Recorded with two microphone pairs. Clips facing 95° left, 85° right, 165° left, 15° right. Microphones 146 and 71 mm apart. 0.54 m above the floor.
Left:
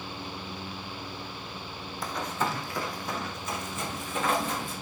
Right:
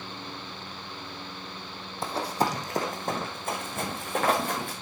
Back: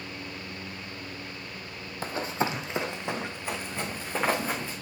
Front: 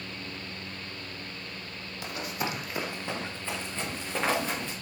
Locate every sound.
2.0 s running footsteps: 140° right, 1.4 m; by 4.7 s 115° right, 4 m